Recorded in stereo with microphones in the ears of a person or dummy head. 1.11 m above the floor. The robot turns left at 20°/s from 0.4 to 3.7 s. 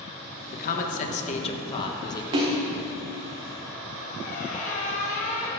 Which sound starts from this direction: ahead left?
A man speaking, at 0.5 s.